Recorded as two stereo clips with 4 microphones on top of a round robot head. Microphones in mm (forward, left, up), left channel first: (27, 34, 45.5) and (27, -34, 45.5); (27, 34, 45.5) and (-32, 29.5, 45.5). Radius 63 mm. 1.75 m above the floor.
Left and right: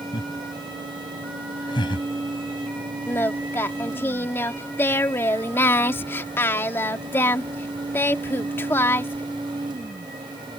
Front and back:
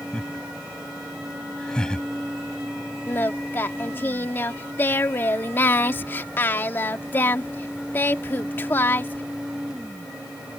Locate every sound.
0.1 s laughter: 80° left
3.1 s singing: 45° left